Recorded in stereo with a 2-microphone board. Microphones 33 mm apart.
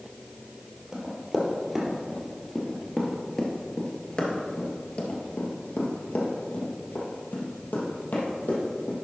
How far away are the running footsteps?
About 2.5 m.